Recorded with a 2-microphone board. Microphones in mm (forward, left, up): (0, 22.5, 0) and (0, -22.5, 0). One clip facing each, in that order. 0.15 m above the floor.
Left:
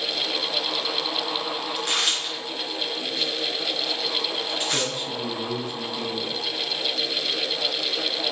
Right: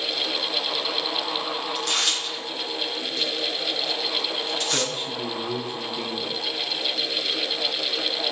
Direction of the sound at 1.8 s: 20° left (ahead or behind).